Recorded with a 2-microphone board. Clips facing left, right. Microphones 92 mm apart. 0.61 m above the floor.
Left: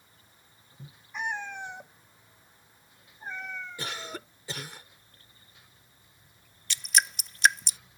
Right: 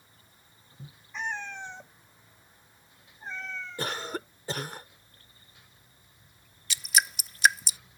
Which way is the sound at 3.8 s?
45° right (ahead or behind).